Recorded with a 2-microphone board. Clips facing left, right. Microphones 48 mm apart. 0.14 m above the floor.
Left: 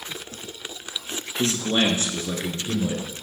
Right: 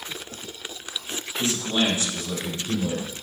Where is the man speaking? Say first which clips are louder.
Left 2 dB; 55° left (ahead or behind), 1.8 m; by 3.0 s 15° left (ahead or behind), 1.6 m.